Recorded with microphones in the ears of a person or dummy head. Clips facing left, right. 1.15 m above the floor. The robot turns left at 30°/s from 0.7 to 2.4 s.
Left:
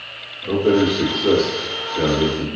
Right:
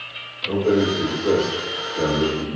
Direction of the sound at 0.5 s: 70° left.